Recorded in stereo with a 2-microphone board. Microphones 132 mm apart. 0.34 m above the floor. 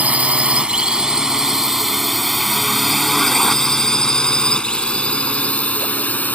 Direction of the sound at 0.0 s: 10° right (ahead or behind).